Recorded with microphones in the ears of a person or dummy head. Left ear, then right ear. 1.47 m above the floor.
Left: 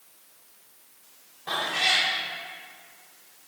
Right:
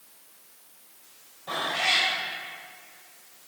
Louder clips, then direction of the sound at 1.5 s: Left 1 dB; 60° left (ahead or behind).